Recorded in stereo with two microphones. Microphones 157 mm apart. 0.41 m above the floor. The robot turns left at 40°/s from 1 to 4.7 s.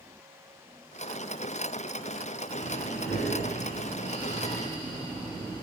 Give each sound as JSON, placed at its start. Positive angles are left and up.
{"t": 2.5, "sound": "breathing", "azimuth_deg": 120, "distance_m": 0.9}